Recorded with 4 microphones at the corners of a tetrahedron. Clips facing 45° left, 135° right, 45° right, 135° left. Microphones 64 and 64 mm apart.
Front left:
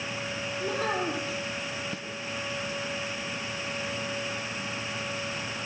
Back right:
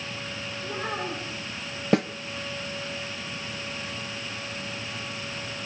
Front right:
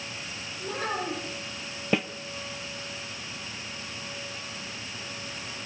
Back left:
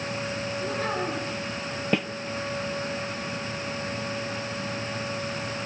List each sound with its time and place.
0.6 s a child speaking: 50° left, 5.5 m
1.9 s a snare drum: 135° right, 0.7 m